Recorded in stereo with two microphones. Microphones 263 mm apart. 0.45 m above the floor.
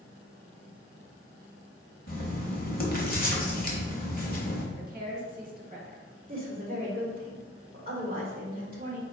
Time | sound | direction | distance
2.1 | writing | 35° left (ahead or behind) | 0.9 m
4.8 | a woman speaking | 35° right (ahead or behind) | 1.2 m
6.3 | a woman speaking | 35° right (ahead or behind) | 1.6 m